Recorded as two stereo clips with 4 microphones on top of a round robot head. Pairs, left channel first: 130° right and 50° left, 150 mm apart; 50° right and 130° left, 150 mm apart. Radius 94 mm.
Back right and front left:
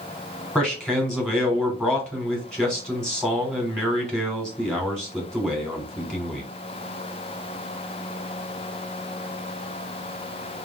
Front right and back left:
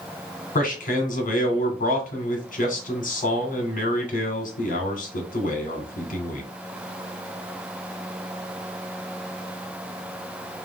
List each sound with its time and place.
0.6 s a man speaking: 45° right, 1.9 m